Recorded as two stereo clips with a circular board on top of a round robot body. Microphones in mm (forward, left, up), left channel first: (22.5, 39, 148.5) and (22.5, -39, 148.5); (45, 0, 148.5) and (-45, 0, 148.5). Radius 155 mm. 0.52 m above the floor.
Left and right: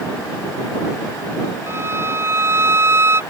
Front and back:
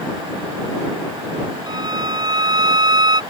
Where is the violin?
145° right.